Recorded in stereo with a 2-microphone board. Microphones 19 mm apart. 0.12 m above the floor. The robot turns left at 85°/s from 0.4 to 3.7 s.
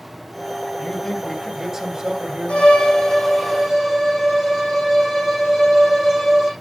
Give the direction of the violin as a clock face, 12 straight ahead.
10 o'clock.